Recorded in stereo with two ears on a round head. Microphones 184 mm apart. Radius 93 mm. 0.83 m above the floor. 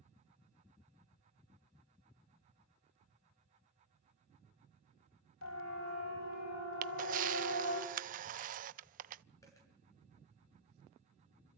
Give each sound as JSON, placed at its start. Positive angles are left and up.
{"t": 5.4, "sound": "a siren", "side_deg": 75, "distance_m": 7.5}
{"t": 6.8, "sound": "a camera shutter", "side_deg": -40, "distance_m": 0.7}
{"t": 9.4, "sound": "a dropped coin", "side_deg": 15, "distance_m": 7.0}